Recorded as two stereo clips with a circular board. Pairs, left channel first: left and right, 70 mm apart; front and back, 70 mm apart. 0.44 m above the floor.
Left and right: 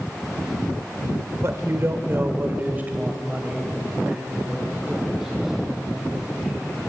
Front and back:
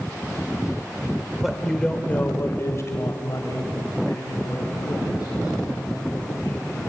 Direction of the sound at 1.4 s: 95° right.